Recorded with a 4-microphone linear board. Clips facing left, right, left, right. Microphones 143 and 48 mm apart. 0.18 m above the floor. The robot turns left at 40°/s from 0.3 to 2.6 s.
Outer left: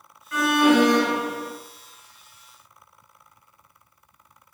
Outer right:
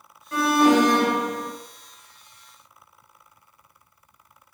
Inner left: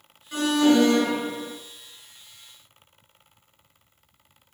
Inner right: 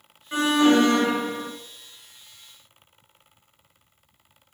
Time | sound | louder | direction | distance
0.3 | an alarm | even, inner right 1 dB | 35° right | 3 m